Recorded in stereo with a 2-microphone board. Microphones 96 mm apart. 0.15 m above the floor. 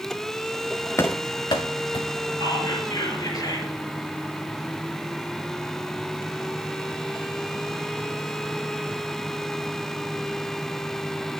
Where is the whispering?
40° left (ahead or behind), 3.5 m.